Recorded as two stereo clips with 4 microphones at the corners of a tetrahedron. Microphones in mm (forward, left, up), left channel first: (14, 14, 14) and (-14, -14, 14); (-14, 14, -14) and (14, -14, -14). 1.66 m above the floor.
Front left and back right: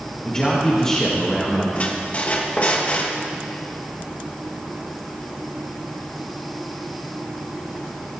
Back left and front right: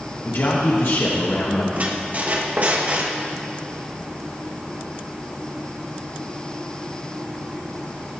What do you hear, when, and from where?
0.2 s a man speaking: 115° left, 1.4 m
1.7 s a squeak: 5° right, 1.4 m